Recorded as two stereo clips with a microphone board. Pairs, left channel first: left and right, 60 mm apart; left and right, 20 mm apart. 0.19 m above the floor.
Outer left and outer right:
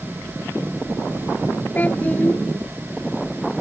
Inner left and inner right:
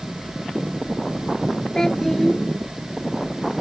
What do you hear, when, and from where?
1.8 s a child speaking: 30° left (ahead or behind)